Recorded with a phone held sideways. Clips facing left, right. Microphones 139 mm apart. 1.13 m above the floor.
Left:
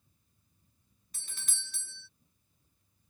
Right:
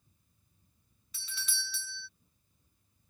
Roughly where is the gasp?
No gasp in this recording.